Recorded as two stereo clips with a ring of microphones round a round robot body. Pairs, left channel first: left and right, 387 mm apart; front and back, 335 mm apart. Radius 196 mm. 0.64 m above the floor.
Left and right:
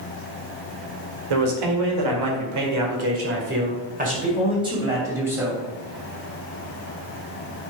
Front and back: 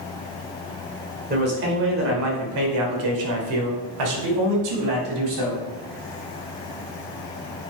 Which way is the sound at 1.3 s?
110° right.